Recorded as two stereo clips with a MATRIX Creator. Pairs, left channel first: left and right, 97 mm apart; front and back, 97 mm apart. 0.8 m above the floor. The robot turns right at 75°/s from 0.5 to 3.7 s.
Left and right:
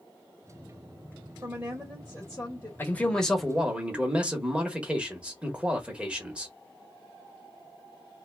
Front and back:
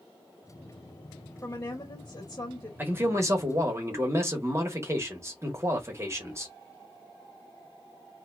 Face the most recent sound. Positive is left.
turn(degrees=-160)